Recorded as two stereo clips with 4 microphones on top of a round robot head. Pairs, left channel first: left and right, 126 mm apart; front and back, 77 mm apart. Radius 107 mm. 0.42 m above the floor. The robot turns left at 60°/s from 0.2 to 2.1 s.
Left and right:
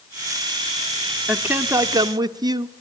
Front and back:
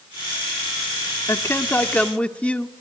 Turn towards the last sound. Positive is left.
turn(degrees=-60)